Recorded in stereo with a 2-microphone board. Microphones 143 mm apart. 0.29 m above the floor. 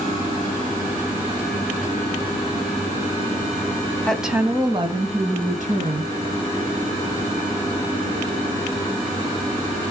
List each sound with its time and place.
4.1 s a woman speaking: 5° left (ahead or behind), 1.5 m; by 6.1 s 65° right (ahead or behind), 3 m